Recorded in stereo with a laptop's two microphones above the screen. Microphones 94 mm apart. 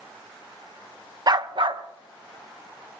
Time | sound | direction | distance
1.3 | a dog barking | 45° right (ahead or behind) | 0.5 m